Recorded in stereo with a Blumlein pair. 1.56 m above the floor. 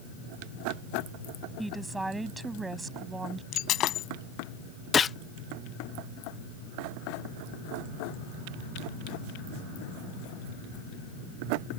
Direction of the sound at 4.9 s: 20° left.